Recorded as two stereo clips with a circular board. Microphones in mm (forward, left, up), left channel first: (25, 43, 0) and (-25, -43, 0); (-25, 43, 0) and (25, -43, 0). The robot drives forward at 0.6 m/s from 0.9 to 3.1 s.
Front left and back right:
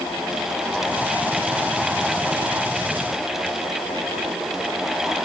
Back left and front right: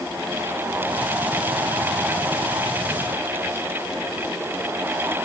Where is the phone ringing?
I don't hear a phone ringing.